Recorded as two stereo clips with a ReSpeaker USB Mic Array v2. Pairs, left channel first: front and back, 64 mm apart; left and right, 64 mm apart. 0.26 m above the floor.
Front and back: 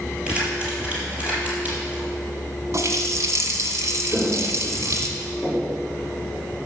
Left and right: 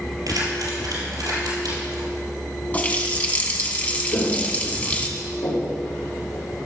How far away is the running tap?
About 1.4 m.